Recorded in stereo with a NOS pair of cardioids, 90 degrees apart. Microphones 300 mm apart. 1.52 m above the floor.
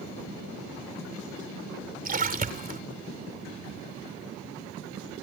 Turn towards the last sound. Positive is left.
turn(degrees=-30)